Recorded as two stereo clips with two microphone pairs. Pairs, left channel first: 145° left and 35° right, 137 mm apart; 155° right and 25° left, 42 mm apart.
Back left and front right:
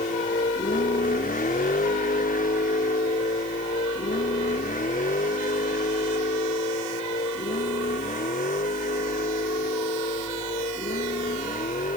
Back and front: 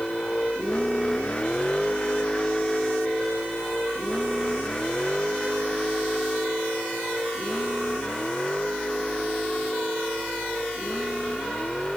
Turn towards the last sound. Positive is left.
turn(degrees=135)